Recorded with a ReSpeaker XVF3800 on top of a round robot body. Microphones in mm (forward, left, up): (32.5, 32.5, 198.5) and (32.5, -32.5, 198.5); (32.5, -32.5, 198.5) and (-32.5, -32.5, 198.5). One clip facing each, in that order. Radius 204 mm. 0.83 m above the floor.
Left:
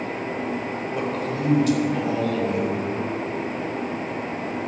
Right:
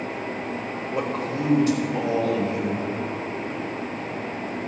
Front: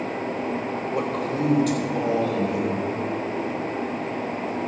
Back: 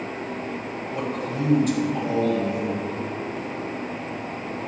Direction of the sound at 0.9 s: 25° right.